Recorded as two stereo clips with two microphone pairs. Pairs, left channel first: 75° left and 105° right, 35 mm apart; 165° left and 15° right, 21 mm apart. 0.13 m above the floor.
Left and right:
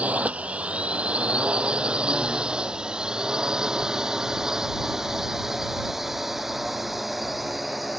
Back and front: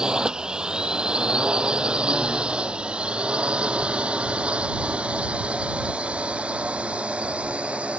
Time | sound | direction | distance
0.0 | a drone | 55° right | ?